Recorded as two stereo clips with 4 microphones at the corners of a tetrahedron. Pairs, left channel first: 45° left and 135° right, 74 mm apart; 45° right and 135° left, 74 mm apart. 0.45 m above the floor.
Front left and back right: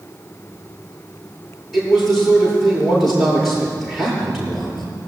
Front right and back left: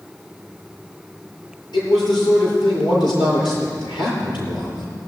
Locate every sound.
1.7 s a man speaking: 50° right, 7 m